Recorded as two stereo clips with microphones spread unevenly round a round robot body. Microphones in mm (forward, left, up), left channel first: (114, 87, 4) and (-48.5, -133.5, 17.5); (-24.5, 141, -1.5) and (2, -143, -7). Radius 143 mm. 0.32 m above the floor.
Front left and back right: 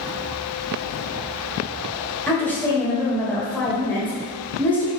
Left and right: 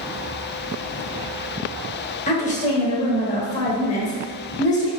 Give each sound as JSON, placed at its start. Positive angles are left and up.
{"t": 2.3, "sound": "a woman speaking", "azimuth_deg": 125, "distance_m": 1.2}